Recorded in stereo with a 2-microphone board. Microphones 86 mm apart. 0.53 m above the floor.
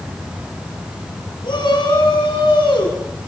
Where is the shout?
70° left (ahead or behind), 7 m; by 3.0 s 80° left, 6.5 m.